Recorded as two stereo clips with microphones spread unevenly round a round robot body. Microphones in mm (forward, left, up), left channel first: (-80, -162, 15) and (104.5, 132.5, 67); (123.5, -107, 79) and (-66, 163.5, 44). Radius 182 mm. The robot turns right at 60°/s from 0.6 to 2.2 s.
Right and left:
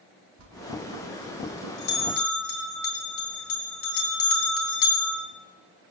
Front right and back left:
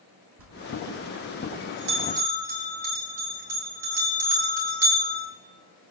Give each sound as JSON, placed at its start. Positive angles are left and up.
{"t": 0.4, "sound": "a bell", "azimuth_deg": 110, "distance_m": 3.5}